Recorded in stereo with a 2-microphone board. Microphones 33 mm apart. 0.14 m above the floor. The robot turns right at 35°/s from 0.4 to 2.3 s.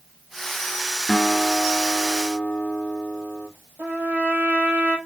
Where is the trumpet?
70° right (ahead or behind), 2 m.